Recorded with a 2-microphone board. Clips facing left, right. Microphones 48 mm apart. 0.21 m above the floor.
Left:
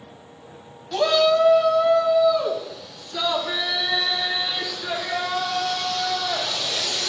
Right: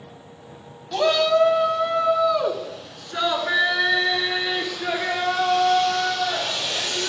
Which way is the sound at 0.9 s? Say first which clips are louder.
Left 1 dB; 5° right (ahead or behind).